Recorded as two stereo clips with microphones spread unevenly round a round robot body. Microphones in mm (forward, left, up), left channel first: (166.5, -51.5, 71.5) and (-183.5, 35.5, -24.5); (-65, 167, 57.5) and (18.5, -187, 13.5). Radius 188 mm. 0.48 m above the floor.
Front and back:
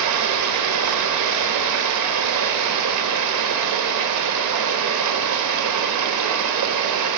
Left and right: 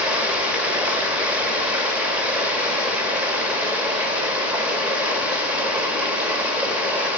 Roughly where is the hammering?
I don't hear hammering.